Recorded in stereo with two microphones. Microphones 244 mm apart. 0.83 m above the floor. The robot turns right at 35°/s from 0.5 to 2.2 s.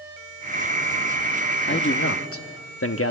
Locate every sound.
1.7 s a man speaking: 45° left (ahead or behind), 1.1 m; by 3.1 s 60° left (ahead or behind), 1.1 m